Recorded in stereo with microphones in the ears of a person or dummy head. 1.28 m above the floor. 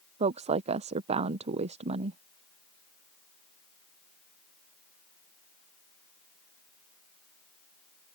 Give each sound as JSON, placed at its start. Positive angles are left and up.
{"t": 0.2, "sound": "a woman speaking", "side_deg": -30}